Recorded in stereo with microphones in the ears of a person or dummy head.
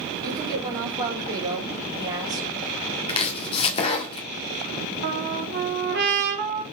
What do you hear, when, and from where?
0.2 s a woman speaking: 20° right (ahead or behind), 3.5 m
3.1 s chopping: 35° left (ahead or behind), 1.8 m
5.0 s a trumpet: 55° right (ahead or behind), 3 m